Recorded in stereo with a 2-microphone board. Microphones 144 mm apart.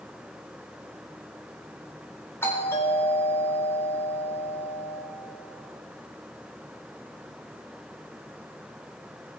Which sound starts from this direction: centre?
A doorbell, at 2.4 s.